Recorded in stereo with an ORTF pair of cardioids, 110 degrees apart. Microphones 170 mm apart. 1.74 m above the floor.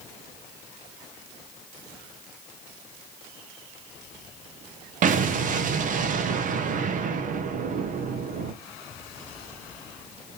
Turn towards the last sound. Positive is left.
turn(degrees=-50)